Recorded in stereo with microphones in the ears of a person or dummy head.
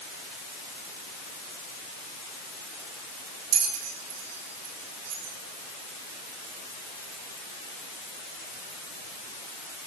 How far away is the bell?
About 3.5 m.